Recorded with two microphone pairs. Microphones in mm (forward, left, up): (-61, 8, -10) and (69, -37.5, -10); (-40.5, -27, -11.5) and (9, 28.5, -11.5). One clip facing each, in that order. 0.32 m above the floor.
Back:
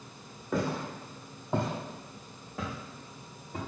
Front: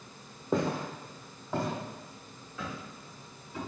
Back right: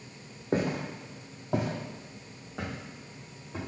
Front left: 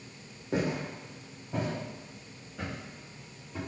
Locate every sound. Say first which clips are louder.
0.5 s footsteps: front 2 dB, back right 2 dB; 80° right, 0.8 m; by 3.6 s 165° right, 1.9 m